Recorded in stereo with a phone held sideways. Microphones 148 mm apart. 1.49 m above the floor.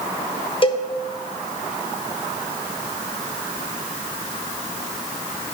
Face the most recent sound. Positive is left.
turn(degrees=35)  # may be behind; listen again after turning